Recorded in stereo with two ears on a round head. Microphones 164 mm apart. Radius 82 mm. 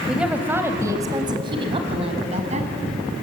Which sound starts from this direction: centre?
A woman speaking, at 0.1 s.